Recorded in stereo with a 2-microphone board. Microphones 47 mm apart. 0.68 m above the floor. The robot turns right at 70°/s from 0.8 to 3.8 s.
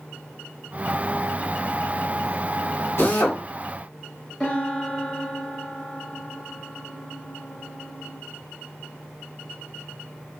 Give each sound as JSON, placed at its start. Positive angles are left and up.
{"t": 3.0, "sound": "a drill", "side_deg": 70, "distance_m": 1.8}
{"t": 4.4, "sound": "a piano", "side_deg": 25, "distance_m": 1.6}